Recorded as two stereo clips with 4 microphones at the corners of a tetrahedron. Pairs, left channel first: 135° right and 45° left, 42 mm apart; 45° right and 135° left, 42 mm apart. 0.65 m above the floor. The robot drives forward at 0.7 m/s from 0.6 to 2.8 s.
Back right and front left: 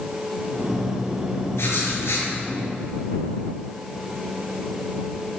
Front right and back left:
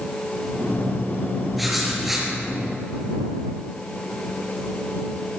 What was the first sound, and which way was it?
Writing, 140° right.